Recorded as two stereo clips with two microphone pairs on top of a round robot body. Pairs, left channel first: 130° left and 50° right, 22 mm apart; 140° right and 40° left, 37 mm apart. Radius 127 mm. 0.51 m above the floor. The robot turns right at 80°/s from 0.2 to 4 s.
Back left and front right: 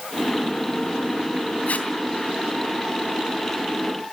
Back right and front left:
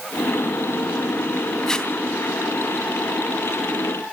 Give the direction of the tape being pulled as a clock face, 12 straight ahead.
7 o'clock.